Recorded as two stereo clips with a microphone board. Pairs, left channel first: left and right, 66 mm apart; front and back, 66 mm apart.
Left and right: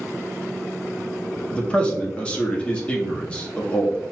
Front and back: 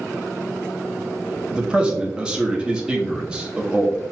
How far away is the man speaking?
About 0.8 m.